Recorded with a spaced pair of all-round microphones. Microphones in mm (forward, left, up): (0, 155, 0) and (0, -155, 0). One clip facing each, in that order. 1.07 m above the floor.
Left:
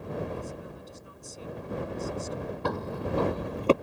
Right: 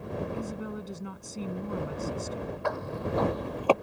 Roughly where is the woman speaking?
Right.